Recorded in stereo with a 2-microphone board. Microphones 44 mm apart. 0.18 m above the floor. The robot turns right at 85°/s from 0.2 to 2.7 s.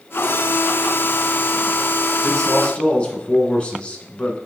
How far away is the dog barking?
No dog barking in this recording.